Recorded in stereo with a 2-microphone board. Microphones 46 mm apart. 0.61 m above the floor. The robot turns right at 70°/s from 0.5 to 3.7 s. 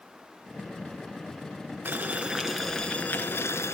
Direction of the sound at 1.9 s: 50° right.